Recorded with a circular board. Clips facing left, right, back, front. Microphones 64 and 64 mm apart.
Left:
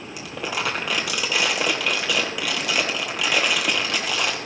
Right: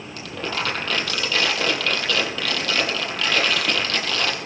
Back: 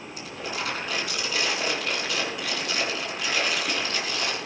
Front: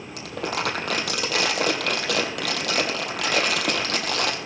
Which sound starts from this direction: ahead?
Crumpling, at 0.2 s.